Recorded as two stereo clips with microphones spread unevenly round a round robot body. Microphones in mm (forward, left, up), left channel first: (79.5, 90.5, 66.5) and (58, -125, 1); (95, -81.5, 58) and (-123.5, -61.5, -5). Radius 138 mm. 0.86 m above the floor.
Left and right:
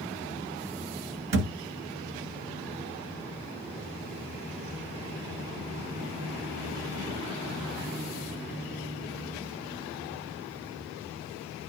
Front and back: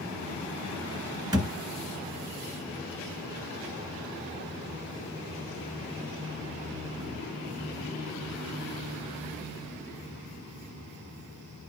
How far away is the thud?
About 1.2 m.